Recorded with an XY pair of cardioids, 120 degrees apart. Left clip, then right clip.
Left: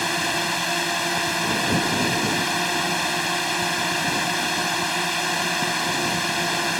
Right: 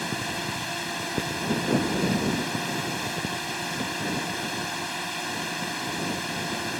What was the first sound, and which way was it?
A drone, 45° left.